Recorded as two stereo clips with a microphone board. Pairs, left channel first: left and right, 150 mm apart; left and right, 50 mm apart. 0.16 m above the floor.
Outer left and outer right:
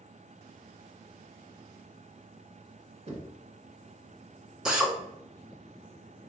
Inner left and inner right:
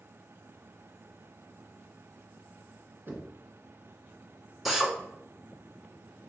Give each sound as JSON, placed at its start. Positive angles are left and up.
{"t": 3.1, "sound": "knocking", "side_deg": -45, "distance_m": 1.3}
{"t": 4.7, "sound": "a drill", "side_deg": -5, "distance_m": 0.9}